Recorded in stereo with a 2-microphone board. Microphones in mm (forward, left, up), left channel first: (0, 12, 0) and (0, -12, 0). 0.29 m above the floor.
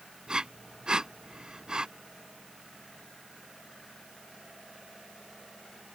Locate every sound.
0.3 s breathing: 30° right (ahead or behind)